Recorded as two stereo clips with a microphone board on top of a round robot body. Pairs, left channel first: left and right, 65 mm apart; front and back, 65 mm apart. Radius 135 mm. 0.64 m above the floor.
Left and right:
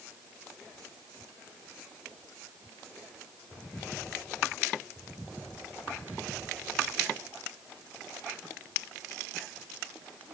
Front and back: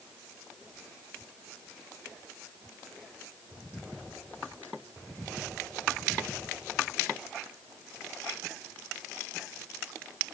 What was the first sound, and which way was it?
Only background noise.